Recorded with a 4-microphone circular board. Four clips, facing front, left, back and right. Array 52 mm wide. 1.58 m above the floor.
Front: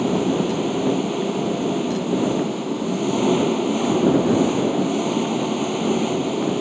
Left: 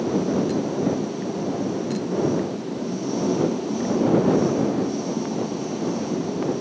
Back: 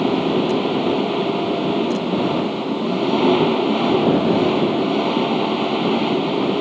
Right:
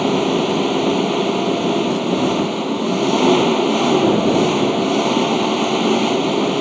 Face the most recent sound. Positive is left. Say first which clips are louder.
# right 6 dB, back 2 dB
turn(degrees=-115)